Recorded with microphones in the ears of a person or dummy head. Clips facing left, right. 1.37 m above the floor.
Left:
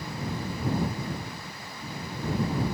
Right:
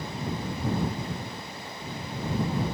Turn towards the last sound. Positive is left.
No sound to turn to.